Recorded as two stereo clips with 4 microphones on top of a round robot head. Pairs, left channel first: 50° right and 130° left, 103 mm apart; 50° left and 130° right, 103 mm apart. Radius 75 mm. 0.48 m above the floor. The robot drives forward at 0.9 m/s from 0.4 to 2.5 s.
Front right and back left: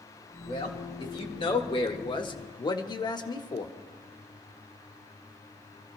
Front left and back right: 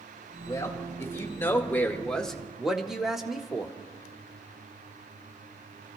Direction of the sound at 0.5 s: 10° right.